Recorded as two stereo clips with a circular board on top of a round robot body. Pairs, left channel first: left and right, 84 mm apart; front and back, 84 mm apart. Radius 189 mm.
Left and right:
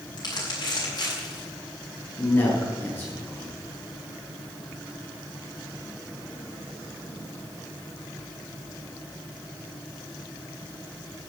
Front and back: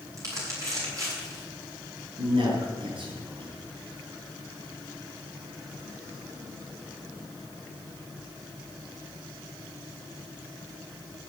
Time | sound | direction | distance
0.2 | crumpling | 130° left | 7.5 m
2.2 | a man speaking | 160° left | 7 m